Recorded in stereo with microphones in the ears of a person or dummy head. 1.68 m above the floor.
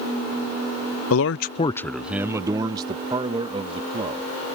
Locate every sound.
1.1 s a man speaking: 80° left; by 4.2 s 35° right (ahead or behind)